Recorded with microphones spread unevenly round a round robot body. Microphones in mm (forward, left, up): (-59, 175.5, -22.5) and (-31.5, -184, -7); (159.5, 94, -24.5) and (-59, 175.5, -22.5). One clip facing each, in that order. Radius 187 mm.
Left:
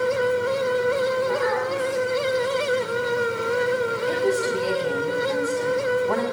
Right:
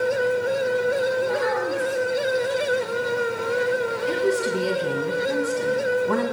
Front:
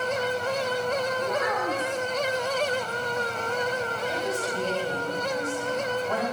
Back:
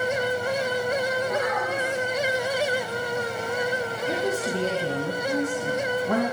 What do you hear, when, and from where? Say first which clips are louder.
1.2 s a child speaking: even, back 1 dB; 35° right, 7.5 m
4.1 s a woman speaking: right 1 dB, back 6 dB; 155° right, 2 m